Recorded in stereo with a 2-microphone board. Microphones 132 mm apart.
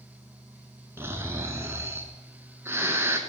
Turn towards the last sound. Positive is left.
turn(degrees=-20)  # may be behind; listen again after turning